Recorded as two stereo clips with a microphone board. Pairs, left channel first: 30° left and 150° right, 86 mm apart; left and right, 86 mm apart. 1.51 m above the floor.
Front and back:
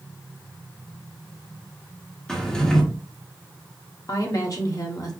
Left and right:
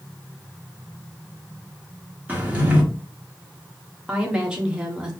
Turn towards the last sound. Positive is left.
turn(degrees=-10)